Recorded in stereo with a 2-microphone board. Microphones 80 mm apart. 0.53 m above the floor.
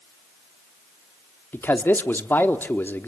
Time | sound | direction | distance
1.5 | a man speaking | 25° left (ahead or behind) | 1.3 m